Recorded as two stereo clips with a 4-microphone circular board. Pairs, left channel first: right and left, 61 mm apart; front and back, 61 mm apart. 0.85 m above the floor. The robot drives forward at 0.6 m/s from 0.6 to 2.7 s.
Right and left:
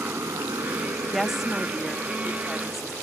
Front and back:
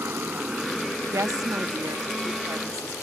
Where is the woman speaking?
175° left; by 2.9 s straight behind.